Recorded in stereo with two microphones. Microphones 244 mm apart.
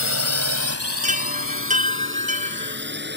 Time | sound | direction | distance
0.0 | a drone | 70° right (ahead or behind) | ?
1.0 | a chime | 30° right (ahead or behind) | ?